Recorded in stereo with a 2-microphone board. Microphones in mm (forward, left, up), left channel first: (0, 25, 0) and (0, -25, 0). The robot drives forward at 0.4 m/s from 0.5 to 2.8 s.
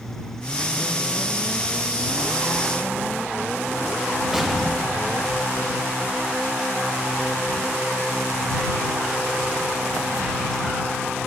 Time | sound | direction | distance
4.3 | an explosion | centre (ahead or behind) | 0.7 m